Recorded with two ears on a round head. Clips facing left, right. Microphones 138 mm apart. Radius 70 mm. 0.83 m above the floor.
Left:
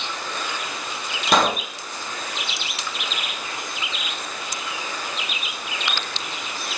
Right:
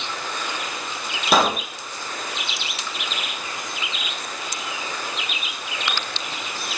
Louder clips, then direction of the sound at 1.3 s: Even; 5° right (ahead or behind).